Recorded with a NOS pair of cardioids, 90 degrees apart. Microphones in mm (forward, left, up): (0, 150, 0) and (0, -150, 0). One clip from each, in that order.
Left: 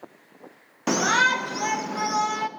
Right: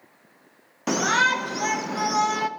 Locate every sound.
0.9 s a shout: 10° left, 1.2 m; by 2.5 s 20° right, 1.7 m